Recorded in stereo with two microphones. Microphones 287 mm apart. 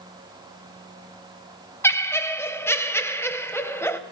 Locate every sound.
1.8 s laughter: 10° left (ahead or behind), 0.8 m